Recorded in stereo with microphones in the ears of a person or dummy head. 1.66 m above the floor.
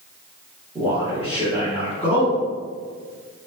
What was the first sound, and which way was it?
A man speaking, 15° right (ahead or behind).